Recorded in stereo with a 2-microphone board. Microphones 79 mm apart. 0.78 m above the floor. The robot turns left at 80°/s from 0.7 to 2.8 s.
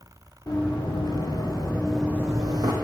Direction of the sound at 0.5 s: 55° left (ahead or behind).